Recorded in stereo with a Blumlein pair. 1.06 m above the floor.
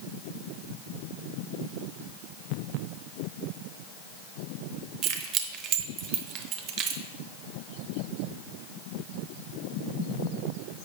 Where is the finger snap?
No finger snap in this recording.